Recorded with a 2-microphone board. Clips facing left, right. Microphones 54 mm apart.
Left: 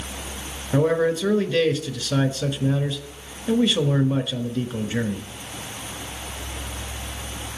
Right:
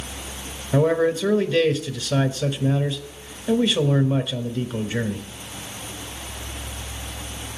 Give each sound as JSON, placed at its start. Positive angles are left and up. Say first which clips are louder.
{"t": 0.7, "sound": "a man speaking", "louder": "right 1 dB", "side_deg": 0, "distance_m": 1.1}